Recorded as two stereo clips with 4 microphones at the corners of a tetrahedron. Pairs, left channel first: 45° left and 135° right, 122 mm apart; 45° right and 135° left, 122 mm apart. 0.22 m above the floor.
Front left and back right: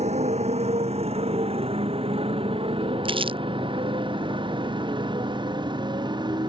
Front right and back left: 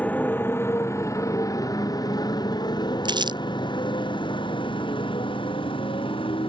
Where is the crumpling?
175° right.